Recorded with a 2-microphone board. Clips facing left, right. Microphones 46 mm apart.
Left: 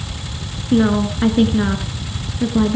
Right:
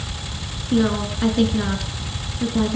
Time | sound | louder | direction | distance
0.7 | a woman speaking | left 4 dB | 20° left (ahead or behind) | 1.3 m